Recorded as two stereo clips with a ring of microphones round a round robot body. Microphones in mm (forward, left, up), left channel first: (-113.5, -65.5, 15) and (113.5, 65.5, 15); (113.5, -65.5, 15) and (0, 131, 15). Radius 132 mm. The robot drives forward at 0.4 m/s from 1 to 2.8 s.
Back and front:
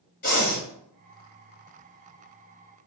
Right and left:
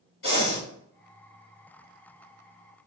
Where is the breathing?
100° right, 4 m.